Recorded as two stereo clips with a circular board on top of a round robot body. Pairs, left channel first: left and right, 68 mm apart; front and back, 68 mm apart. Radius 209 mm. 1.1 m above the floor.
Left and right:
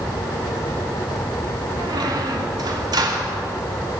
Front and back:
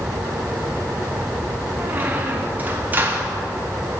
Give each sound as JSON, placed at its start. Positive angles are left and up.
{"t": 1.8, "sound": "a squeak", "azimuth_deg": -115, "distance_m": 1.1}